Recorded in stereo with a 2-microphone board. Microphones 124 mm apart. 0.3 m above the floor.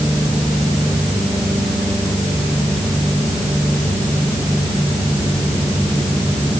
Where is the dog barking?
No dog barking in this recording.